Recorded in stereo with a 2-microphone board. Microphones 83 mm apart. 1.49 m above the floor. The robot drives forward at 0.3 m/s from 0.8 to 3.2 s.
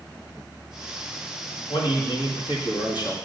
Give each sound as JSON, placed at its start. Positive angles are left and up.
{"t": 1.7, "sound": "a man speaking", "side_deg": 80, "distance_m": 1.9}